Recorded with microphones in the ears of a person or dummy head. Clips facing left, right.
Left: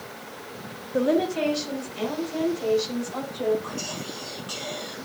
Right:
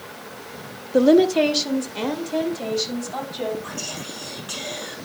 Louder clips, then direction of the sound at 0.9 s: Right 8 dB; 50° right (ahead or behind).